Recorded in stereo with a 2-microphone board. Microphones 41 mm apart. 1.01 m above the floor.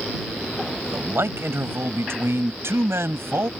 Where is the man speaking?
75° right (ahead or behind); by 3.5 s 85° right.